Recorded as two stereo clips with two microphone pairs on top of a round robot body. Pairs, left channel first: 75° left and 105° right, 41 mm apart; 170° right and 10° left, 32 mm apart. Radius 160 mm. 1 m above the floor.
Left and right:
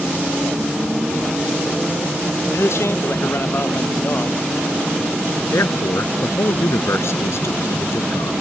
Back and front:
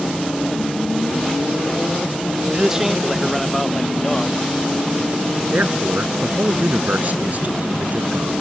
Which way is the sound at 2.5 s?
85° left.